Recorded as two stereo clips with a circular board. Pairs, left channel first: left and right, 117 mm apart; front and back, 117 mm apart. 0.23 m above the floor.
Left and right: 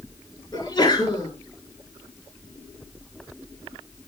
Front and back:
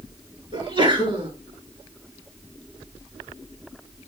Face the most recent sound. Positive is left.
turn(degrees=140)